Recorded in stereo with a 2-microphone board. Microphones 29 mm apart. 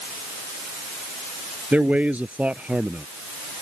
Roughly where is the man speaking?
Right.